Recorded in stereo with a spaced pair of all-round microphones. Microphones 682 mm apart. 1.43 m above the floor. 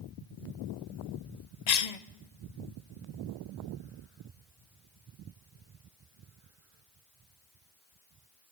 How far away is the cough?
About 0.9 m.